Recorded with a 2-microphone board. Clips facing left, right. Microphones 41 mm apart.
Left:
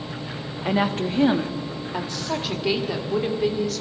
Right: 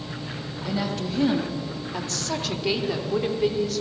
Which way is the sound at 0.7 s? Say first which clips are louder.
Left 6 dB; 50° left (ahead or behind).